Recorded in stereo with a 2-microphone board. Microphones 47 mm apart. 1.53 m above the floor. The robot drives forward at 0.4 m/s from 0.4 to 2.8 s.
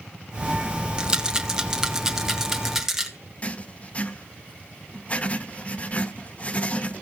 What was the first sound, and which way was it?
A rattle, 20° right (ahead or behind).